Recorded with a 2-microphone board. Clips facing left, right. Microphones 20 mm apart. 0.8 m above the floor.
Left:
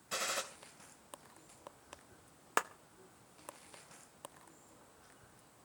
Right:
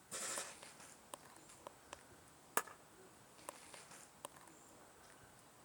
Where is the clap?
30° left (ahead or behind), 0.7 m.